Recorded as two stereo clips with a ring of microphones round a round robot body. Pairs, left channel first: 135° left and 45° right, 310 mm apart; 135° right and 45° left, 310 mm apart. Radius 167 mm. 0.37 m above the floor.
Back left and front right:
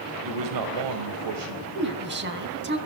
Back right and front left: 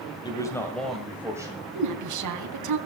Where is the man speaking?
60° right, 2 m; by 1.6 s 30° right, 1.9 m.